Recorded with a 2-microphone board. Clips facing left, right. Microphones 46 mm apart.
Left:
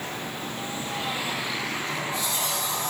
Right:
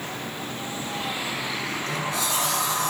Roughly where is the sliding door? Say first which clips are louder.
Right 1 dB; right.